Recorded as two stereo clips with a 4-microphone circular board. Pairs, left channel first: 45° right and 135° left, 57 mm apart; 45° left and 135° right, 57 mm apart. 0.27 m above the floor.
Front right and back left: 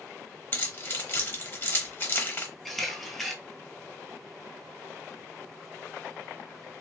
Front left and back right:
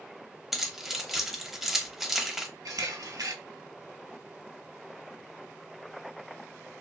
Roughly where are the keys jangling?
Ahead right.